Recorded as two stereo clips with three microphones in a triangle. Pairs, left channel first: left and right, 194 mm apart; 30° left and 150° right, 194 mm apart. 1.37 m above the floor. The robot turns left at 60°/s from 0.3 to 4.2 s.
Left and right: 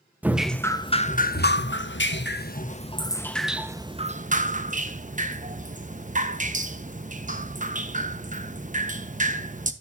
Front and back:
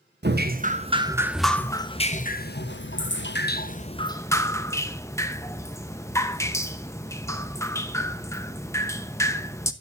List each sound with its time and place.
0.2 s dripping: 170° right, 1.0 m; by 9.7 s 45° right, 1.0 m